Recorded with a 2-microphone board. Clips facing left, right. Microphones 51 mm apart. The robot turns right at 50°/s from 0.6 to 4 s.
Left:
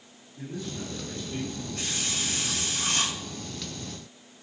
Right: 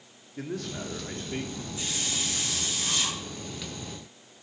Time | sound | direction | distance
0.4 | a man speaking | 70° right | 2 m
1.8 | a hiss | 55° left | 7 m